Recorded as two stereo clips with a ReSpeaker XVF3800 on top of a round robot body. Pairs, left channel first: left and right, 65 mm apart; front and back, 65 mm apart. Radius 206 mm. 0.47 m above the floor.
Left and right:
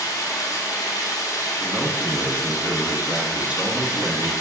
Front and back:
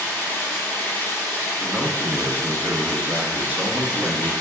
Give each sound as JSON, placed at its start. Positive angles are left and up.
{"t": 0.0, "sound": "running water", "azimuth_deg": 65, "distance_m": 0.8}
{"t": 1.6, "sound": "a man speaking", "azimuth_deg": -145, "distance_m": 0.9}